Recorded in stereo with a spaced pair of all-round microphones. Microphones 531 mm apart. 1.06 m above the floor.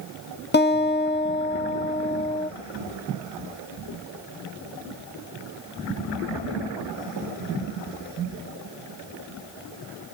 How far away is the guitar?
About 0.7 m.